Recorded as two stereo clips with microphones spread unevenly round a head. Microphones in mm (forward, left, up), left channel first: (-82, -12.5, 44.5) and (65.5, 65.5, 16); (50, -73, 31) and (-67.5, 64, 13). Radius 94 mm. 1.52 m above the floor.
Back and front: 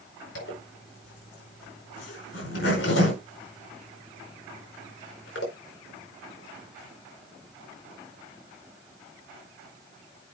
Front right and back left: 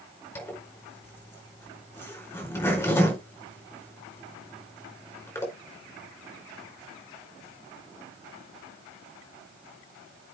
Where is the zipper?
125° right, 5 m.